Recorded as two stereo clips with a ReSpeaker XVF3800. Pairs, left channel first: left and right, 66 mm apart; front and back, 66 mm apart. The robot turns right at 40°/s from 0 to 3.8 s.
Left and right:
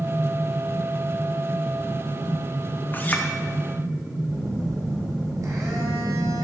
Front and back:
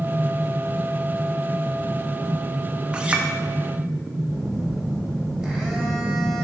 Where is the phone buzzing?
100° right, 1.5 m.